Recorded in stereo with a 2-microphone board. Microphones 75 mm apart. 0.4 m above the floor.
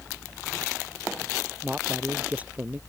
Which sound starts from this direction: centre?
A man speaking, at 1.6 s.